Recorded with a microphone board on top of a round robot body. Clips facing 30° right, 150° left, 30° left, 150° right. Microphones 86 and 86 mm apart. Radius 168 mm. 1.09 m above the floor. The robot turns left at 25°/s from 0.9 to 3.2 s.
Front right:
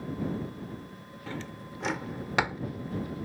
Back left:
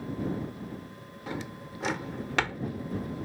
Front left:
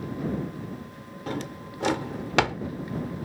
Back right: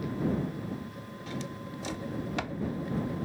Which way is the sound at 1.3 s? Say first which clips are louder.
Back left 2 dB, front left 6 dB; 75° left.